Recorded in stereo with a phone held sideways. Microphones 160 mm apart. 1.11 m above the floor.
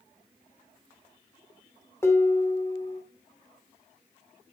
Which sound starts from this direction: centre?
Dishes clattering, at 2.0 s.